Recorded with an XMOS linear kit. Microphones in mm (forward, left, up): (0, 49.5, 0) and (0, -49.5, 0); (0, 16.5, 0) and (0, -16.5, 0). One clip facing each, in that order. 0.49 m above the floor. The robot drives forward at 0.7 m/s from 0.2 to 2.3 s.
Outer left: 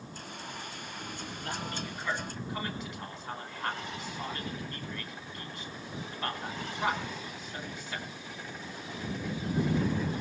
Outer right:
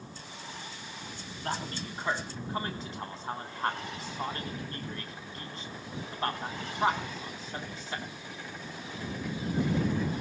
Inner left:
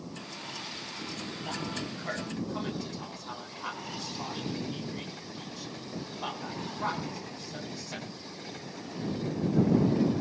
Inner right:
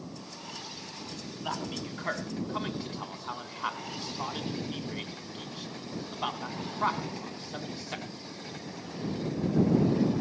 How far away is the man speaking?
About 3.5 m.